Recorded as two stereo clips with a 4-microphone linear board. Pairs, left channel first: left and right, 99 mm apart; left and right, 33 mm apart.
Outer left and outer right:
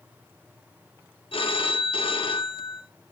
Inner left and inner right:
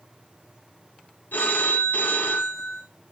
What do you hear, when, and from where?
1.3 s a phone ringing: 65° left (ahead or behind), 1.6 m